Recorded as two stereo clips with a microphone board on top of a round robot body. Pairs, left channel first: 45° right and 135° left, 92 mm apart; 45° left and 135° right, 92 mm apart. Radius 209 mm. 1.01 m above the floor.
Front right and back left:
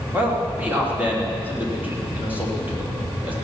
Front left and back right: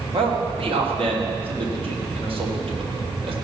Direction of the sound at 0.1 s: 150° right.